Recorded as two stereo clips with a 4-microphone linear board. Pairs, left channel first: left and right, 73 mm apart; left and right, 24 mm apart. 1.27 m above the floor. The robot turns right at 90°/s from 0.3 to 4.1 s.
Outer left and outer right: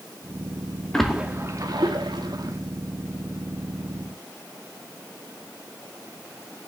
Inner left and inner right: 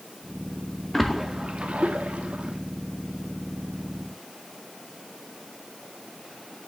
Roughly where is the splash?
Centre.